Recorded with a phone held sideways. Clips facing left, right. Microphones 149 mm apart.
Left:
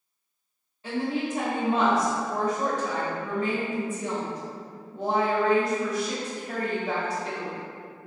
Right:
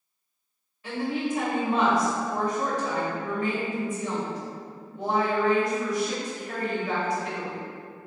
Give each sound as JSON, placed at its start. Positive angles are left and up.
{"t": 0.8, "sound": "a woman speaking", "side_deg": 30, "distance_m": 0.8}